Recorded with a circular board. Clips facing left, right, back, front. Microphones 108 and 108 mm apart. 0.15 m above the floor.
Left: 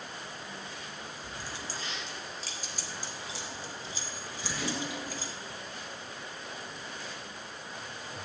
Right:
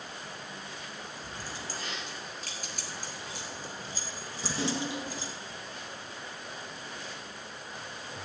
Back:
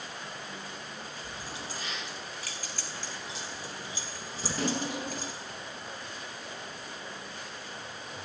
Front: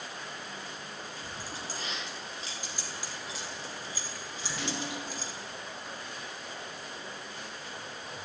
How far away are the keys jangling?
About 4 m.